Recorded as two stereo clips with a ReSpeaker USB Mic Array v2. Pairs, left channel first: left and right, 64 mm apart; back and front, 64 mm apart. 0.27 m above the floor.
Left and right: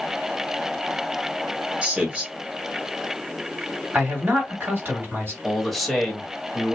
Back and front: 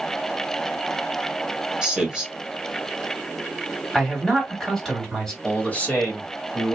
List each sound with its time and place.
1.8 s a man speaking: 55° right, 1.3 m
3.9 s a man speaking: 105° right, 1.8 m
5.4 s a man speaking: 175° left, 1.0 m